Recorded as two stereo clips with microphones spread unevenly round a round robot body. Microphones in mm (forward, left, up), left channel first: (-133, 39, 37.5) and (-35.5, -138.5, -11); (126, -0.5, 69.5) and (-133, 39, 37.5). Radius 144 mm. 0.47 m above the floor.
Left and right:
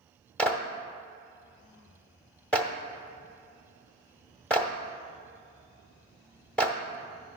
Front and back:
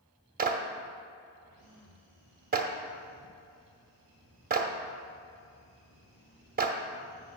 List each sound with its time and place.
0.4 s a clap: 145° right, 0.9 m